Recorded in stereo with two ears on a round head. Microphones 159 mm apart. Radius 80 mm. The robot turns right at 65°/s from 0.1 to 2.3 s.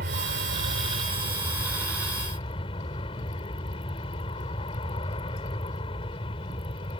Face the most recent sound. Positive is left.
turn(degrees=35)